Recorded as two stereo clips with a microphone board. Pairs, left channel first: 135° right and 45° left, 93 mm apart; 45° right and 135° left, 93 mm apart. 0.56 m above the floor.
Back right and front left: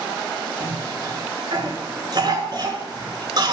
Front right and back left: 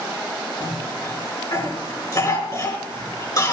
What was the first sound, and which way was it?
A cough, 5° left.